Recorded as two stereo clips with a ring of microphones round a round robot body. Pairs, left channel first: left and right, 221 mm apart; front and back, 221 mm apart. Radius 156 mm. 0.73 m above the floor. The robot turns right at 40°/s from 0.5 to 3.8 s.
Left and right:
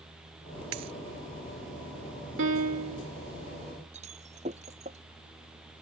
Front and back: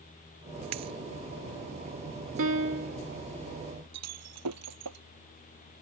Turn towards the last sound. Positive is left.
turn(degrees=-160)